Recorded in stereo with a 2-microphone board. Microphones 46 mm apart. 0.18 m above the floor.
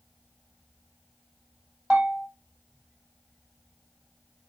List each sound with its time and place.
1.9 s a bell: 30° right (ahead or behind), 1.9 m